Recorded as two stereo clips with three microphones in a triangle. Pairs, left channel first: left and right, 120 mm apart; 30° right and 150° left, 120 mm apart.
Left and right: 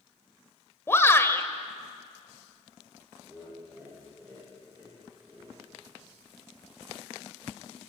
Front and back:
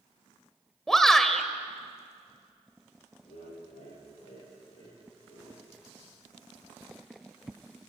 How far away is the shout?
About 1.4 m.